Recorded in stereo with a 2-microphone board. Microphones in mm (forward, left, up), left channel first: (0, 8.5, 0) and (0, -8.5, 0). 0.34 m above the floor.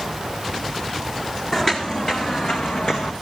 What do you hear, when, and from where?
1.5 s footsteps: 30° left (ahead or behind), 1.5 m; by 3.1 s 75° left (ahead or behind), 1.9 m